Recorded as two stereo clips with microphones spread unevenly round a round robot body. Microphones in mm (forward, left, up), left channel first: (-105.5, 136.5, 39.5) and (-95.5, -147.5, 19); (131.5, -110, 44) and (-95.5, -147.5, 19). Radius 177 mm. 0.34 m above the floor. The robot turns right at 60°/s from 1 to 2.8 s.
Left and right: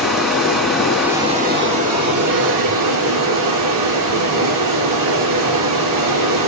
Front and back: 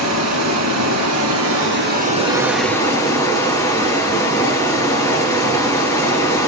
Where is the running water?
175° right, 2.5 m; by 6.5 s 70° right, 2.5 m.